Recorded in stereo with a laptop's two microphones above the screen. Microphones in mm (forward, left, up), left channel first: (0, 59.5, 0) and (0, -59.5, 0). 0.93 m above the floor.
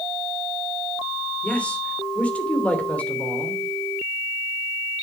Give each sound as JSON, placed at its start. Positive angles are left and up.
{"t": 1.4, "sound": "a man speaking", "side_deg": 10, "distance_m": 3.0}